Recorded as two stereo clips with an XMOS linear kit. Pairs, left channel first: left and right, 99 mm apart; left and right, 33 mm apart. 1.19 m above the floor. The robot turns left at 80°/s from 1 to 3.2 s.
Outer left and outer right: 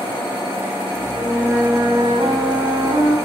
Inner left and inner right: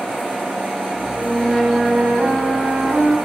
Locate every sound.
1.1 s a flute: 20° left, 3 m; by 3.1 s 140° right, 3 m